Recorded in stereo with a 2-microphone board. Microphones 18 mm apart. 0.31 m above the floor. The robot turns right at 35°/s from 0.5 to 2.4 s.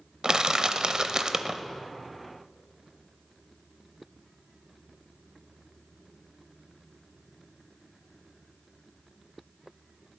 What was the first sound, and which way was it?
Crushing, 90° right.